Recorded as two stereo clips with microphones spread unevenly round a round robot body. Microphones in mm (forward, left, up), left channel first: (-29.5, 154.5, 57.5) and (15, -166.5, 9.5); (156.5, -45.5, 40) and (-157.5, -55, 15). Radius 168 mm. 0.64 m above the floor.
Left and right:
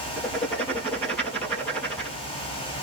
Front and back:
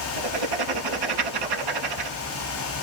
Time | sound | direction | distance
0.2 | writing | 175° right | 3 m